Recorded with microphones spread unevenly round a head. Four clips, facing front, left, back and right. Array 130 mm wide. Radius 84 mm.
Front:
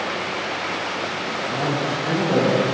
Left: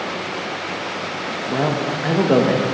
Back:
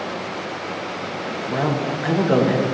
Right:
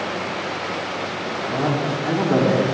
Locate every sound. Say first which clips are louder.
1.5 s a man speaking: left 2 dB, back 2 dB; 115° left, 1.8 m